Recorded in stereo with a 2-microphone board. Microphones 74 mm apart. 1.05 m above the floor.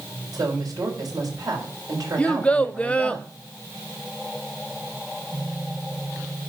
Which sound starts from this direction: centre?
A child speaking, at 2.2 s.